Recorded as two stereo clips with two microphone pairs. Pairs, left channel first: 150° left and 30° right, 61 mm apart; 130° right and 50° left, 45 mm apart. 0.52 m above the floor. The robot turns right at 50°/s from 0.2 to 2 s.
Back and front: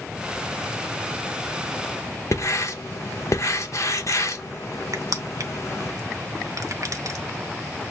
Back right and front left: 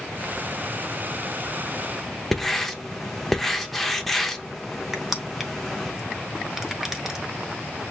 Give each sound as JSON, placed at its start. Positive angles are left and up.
{"t": 2.3, "sound": "writing", "azimuth_deg": 145, "distance_m": 0.7}
{"t": 4.9, "sound": "crushing", "azimuth_deg": -35, "distance_m": 0.8}